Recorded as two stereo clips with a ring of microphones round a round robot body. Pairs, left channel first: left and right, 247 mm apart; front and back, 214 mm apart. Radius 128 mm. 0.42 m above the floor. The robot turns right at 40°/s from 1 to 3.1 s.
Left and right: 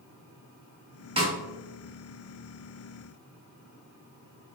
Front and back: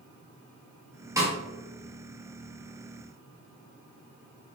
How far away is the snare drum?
About 0.9 m.